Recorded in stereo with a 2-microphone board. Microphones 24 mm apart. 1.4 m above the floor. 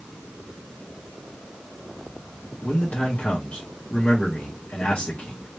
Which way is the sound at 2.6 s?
75° left (ahead or behind).